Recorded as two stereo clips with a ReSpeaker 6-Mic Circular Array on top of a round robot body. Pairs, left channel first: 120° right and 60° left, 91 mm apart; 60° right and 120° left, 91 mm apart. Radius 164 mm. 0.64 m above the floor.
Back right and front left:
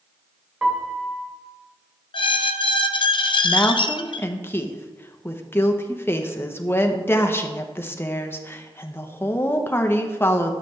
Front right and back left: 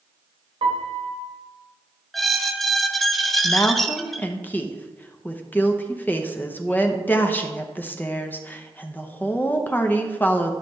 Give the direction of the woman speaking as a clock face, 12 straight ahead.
3 o'clock.